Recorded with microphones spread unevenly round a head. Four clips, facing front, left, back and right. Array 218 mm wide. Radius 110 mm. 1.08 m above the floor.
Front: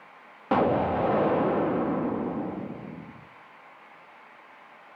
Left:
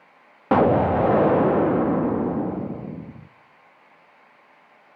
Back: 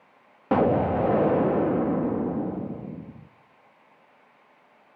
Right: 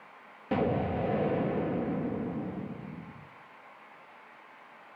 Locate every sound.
0.5 s an explosion: 75° left, 0.6 m